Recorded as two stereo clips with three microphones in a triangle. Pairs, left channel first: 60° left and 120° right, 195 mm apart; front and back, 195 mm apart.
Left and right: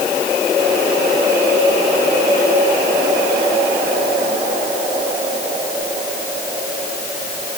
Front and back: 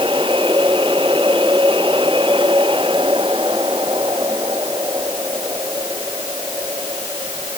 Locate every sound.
Only background noise.